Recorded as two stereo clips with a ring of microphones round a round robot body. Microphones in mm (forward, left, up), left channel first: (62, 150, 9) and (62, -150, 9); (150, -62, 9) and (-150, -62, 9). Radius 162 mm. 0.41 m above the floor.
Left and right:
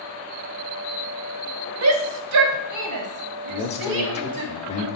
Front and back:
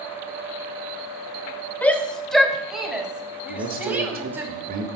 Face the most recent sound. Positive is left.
turn(degrees=145)